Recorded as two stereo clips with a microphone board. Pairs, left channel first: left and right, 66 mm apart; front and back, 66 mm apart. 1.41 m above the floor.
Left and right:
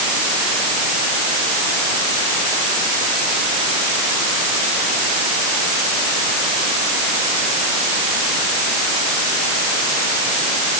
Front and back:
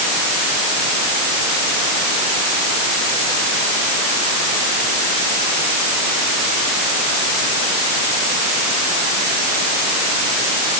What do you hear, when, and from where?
Only background noise.